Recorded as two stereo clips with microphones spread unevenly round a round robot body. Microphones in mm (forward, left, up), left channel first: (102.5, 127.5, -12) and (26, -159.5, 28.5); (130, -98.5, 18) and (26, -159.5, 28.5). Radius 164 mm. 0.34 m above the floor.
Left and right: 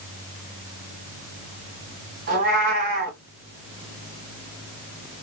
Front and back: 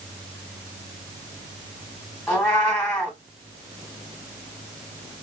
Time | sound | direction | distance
2.3 | a cat meowing | 55° right | 2 m